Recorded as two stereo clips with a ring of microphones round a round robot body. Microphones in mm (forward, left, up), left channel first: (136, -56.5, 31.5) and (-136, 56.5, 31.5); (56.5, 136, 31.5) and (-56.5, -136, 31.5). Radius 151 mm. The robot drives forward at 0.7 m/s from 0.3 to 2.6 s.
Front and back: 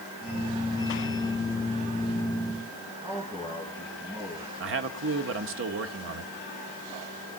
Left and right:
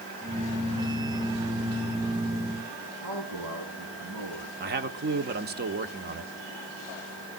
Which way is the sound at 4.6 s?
165° right.